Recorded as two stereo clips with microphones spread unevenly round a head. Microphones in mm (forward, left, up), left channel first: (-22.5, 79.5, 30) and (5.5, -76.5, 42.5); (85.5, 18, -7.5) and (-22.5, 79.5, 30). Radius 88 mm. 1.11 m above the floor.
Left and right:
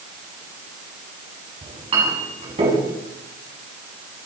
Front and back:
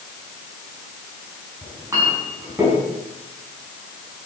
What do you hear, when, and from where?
1.6 s a clink: 135° right, 6 m